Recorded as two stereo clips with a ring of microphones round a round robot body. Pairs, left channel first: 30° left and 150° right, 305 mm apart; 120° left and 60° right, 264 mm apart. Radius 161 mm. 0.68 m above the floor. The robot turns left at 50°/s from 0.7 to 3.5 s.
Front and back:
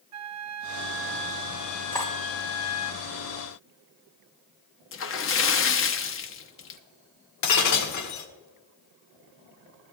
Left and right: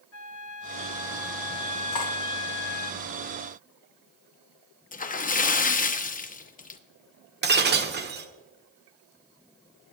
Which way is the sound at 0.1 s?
170° left.